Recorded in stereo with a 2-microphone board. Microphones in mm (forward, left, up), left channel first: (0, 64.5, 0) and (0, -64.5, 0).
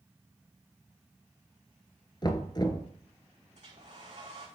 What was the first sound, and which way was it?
Knocking, 35° left (ahead or behind).